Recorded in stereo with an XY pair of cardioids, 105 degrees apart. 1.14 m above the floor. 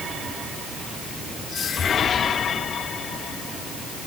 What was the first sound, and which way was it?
Only background noise.